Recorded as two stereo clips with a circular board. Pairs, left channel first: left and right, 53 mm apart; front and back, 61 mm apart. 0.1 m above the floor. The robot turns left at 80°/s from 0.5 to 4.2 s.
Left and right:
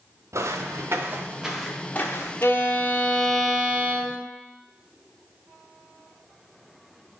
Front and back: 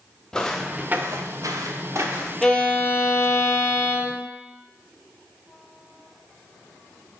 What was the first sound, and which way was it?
Footsteps, 80° right.